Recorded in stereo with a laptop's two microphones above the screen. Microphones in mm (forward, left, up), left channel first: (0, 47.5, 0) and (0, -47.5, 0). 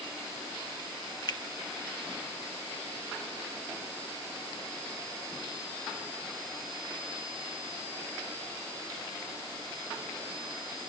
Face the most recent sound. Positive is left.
turn(degrees=45)  # may be behind; listen again after turning